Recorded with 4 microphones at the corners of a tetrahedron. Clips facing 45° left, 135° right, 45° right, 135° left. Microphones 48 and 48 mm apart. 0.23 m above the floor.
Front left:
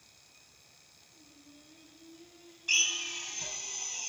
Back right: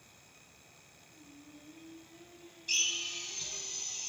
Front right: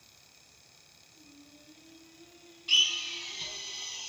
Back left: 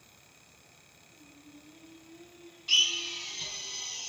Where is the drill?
45° left, 0.8 m.